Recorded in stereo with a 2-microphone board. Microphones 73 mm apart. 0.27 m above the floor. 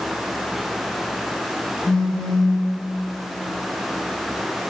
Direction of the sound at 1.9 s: 5° left (ahead or behind).